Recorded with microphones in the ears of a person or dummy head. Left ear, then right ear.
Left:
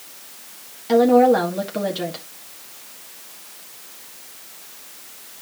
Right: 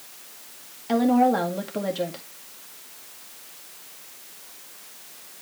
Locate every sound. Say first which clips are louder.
0.9 s a woman speaking: left 7 dB; 5° right (ahead or behind), 1.8 m